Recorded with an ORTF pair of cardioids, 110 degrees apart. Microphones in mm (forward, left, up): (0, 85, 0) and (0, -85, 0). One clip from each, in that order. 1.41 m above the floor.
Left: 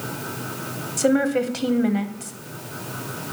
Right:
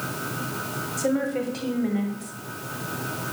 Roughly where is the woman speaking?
Ahead left.